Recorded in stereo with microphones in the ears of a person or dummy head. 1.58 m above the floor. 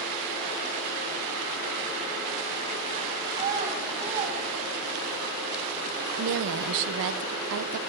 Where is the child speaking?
40° right (ahead or behind), 5.5 m; by 5.2 s 30° right (ahead or behind), 5.5 m.